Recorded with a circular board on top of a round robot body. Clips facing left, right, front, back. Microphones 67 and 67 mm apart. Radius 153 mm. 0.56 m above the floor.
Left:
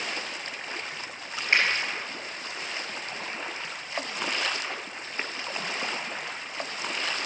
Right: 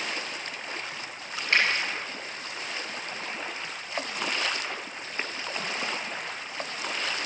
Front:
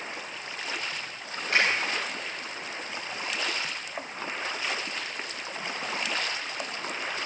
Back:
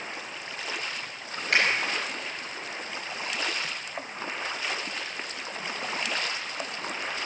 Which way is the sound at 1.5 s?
160° left.